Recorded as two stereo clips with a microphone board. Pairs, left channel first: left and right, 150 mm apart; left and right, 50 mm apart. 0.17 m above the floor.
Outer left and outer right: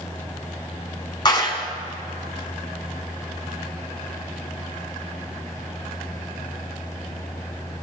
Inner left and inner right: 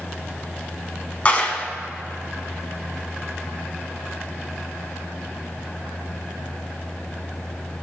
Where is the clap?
30° left (ahead or behind), 0.9 m.